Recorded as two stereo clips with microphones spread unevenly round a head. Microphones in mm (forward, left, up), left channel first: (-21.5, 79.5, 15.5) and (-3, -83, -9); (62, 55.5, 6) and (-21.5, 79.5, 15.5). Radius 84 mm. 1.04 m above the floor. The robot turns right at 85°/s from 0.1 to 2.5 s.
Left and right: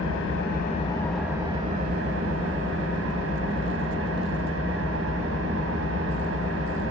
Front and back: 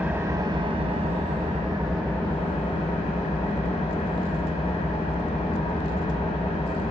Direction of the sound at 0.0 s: 95° left.